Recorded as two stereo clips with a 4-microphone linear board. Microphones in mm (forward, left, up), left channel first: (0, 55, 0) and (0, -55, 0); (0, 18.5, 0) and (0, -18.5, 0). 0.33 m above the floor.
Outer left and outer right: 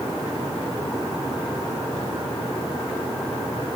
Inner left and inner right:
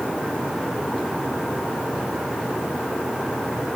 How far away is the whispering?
No whispering in this recording.